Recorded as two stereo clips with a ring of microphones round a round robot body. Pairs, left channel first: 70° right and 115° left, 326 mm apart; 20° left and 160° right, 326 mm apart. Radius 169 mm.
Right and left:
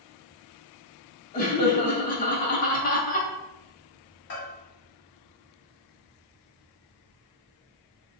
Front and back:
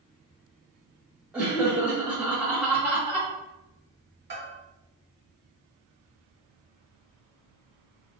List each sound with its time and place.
1.3 s laughter: 75° right, 0.7 m
4.3 s a bell: 110° right, 1.6 m